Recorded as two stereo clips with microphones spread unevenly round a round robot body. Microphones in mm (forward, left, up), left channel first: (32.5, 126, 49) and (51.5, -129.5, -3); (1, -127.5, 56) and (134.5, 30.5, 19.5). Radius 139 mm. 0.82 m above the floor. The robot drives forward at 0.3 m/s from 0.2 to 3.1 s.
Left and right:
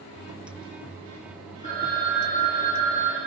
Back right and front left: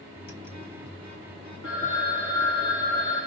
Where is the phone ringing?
155° left, 2.5 m.